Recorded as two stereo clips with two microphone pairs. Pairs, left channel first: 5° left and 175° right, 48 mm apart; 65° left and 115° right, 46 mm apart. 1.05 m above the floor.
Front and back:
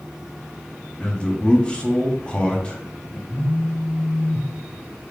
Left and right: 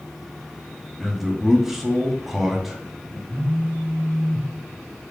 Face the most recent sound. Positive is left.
turn(degrees=-30)